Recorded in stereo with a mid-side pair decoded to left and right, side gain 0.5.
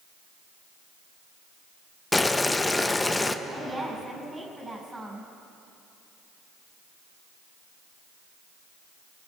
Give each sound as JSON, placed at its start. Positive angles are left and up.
{"t": 2.1, "sound": "boiling", "azimuth_deg": 15, "distance_m": 0.8}
{"t": 3.5, "sound": "a woman speaking", "azimuth_deg": -15, "distance_m": 6.5}